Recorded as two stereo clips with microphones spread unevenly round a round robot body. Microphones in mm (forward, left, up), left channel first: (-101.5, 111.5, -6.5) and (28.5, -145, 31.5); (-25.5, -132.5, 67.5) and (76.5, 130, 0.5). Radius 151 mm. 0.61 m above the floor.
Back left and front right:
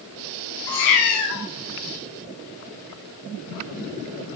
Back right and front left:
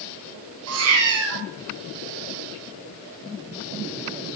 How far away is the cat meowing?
About 1.8 m.